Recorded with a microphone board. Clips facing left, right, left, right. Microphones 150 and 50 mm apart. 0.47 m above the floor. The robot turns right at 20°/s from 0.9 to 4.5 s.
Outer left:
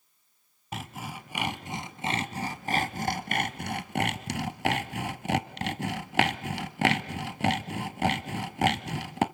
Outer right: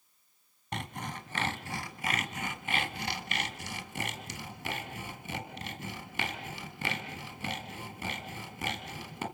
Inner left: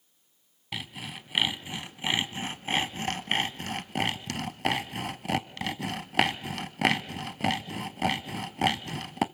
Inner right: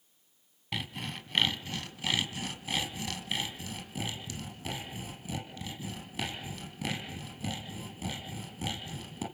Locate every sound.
0.7 s sawing: 5° left (ahead or behind), 1.0 m; by 9.2 s 75° left (ahead or behind), 1.0 m